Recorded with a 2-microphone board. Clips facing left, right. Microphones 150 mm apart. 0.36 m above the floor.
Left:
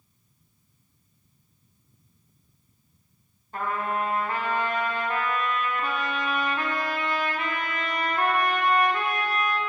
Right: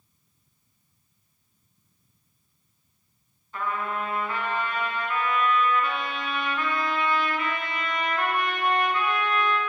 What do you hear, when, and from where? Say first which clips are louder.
3.5 s a trumpet: left 2 dB; 45° left (ahead or behind), 1.2 m